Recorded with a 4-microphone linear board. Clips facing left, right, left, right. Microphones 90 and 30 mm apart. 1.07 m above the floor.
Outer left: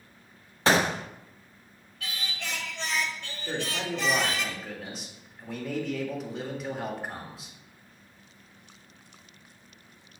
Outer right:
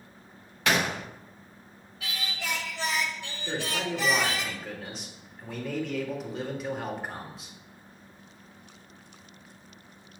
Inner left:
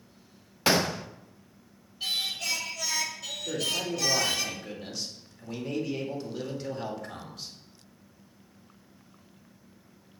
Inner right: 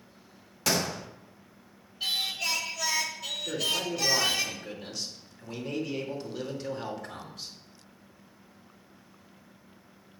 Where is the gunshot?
30° left (ahead or behind), 0.6 m.